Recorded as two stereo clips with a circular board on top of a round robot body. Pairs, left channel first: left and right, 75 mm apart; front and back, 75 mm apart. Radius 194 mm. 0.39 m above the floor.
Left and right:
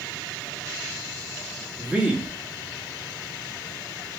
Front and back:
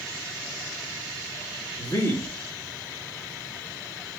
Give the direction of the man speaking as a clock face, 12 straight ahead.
1 o'clock.